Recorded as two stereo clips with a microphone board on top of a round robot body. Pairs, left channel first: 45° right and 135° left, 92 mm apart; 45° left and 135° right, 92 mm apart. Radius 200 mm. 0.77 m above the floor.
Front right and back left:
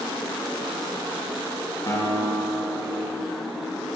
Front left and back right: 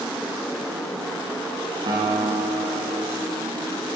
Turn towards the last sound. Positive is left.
turn(degrees=-100)